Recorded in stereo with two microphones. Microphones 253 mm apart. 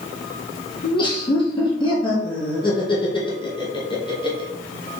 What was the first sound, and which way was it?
Laughter, 20° left (ahead or behind).